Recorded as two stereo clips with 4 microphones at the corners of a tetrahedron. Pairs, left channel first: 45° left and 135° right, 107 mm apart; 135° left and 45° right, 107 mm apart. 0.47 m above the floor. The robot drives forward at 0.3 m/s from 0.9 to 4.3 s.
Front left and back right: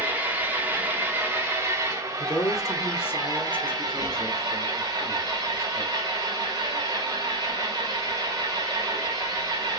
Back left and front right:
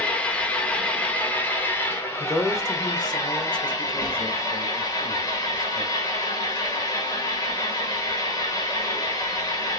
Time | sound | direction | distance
0.0 | an engine running | 175° right | 1.1 m
2.2 | a man speaking | 85° left | 1.0 m